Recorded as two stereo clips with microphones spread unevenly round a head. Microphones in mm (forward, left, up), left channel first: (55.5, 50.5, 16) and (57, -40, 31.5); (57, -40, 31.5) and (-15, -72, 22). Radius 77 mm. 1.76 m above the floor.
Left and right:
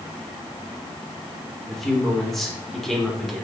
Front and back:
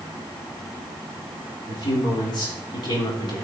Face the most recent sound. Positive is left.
turn(degrees=0)